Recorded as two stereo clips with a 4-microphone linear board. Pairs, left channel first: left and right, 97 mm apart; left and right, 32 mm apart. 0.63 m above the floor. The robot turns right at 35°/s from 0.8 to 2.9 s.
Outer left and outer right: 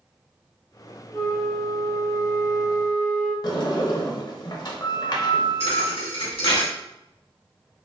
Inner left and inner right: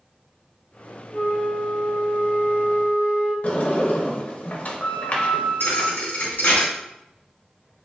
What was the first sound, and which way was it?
A flute, straight behind.